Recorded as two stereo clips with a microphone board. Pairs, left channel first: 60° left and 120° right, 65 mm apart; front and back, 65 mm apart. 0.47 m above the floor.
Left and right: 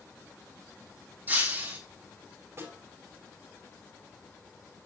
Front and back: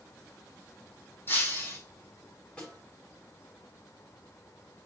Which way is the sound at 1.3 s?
55° right.